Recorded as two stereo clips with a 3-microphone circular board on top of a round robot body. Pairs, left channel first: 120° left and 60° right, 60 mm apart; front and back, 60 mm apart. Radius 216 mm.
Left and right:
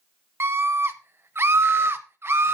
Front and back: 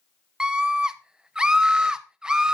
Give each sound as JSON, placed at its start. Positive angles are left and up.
{"t": 0.4, "sound": "a scream", "azimuth_deg": -105, "distance_m": 1.2}